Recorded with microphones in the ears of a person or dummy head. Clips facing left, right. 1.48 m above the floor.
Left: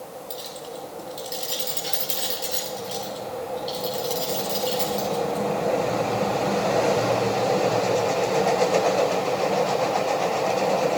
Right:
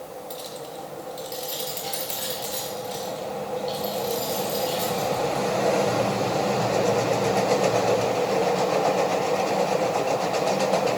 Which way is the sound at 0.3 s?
10° left (ahead or behind).